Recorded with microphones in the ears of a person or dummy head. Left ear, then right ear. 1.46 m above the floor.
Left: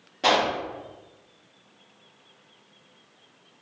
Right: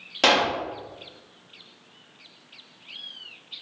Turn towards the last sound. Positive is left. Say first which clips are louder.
# right 2 dB
turn(degrees=-50)  # may be behind; listen again after turning